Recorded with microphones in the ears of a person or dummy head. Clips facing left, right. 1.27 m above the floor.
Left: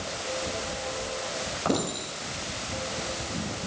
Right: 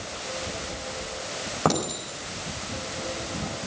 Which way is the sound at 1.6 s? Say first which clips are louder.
Right 2 dB; 65° right (ahead or behind).